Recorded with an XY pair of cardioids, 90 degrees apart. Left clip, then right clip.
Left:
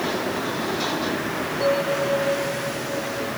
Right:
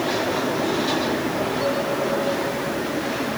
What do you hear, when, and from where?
1.6 s a bell: 15° left, 7 m